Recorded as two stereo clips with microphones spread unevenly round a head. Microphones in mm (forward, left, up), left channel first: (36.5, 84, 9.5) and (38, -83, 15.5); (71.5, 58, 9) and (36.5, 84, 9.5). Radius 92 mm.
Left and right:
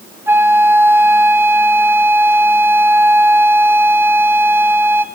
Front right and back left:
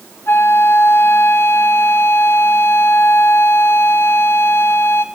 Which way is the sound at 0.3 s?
15° right.